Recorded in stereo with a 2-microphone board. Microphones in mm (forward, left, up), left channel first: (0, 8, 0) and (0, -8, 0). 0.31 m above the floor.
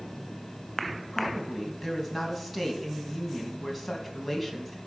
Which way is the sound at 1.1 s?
5° right (ahead or behind).